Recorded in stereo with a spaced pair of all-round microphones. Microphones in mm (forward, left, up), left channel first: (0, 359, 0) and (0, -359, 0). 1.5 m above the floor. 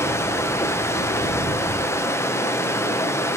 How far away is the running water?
About 0.9 m.